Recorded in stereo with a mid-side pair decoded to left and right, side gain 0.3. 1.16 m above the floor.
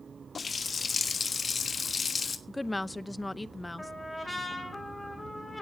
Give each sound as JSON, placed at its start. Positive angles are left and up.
{"t": 0.3, "sound": "a running tap", "azimuth_deg": 55, "distance_m": 1.4}
{"t": 2.5, "sound": "a woman speaking", "azimuth_deg": 20, "distance_m": 0.7}
{"t": 3.8, "sound": "a trumpet", "azimuth_deg": 15, "distance_m": 6.0}